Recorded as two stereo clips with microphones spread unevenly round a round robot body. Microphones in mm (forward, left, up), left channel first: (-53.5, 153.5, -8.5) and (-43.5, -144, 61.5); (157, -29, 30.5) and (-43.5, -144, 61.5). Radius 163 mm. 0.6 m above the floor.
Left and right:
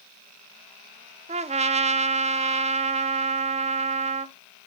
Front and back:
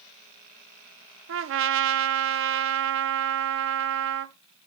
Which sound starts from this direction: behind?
A trumpet, at 1.3 s.